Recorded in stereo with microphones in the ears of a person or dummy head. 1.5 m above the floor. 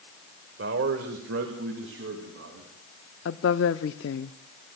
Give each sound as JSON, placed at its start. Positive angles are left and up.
{"t": 0.6, "sound": "a man speaking", "side_deg": -65, "distance_m": 1.1}
{"t": 3.2, "sound": "a woman speaking", "side_deg": 65, "distance_m": 0.6}